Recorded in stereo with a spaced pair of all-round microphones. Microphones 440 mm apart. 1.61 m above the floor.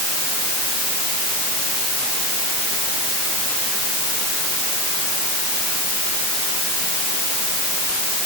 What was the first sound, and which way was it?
Only background noise.